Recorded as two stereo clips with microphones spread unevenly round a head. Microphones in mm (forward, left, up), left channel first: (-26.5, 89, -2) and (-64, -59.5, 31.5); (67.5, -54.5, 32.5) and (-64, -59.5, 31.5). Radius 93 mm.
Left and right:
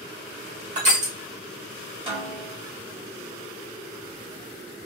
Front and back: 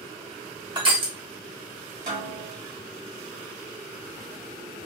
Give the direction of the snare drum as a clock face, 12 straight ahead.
5 o'clock.